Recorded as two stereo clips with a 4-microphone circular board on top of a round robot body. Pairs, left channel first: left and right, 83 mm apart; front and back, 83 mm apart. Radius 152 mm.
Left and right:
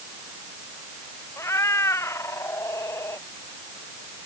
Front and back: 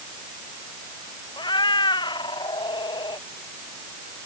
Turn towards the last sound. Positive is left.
turn(degrees=30)